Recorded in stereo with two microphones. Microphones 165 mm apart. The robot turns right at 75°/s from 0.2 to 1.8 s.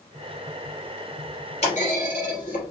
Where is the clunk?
40° left (ahead or behind), 2.5 m; by 2.7 s 55° left (ahead or behind), 2.5 m.